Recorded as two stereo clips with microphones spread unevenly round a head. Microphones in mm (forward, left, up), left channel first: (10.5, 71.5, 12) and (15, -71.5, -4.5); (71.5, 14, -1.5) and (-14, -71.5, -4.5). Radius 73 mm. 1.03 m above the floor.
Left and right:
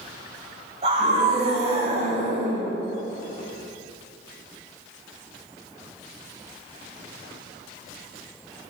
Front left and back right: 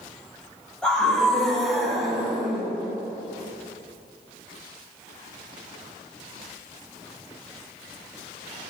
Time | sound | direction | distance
0.8 | a scream | 40° right | 6 m